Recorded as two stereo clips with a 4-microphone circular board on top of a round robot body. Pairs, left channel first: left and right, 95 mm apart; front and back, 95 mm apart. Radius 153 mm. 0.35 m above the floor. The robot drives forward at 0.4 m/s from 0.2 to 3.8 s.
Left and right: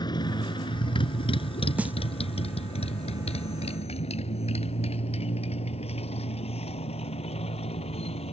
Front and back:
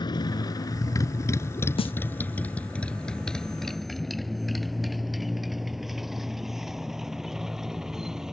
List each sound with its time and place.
0.0 s a motorcycle: 45° left; by 8.3 s 95° left
1.8 s a snare drum: 15° right